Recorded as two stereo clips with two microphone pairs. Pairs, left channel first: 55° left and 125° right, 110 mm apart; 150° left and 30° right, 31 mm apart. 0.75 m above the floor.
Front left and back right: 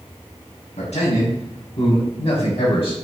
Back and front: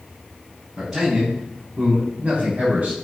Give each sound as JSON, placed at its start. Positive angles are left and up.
{"t": 0.8, "sound": "a man speaking", "azimuth_deg": 50, "distance_m": 4.5}